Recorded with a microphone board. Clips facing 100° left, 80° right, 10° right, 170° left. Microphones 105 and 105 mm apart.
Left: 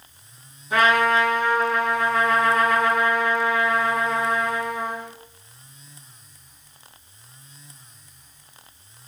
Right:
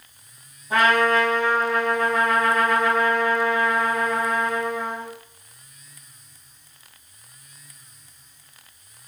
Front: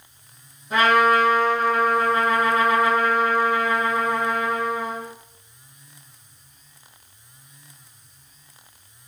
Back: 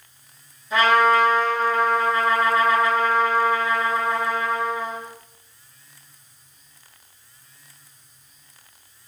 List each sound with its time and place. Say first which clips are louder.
0.7 s a trumpet: even, even; 35° right, 1.6 m